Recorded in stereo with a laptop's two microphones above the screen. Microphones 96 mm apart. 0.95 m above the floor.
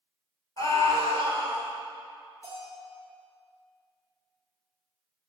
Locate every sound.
0.6 s a scream: 40° left (ahead or behind), 3.5 m
2.4 s a bell: 35° left (ahead or behind), 4.5 m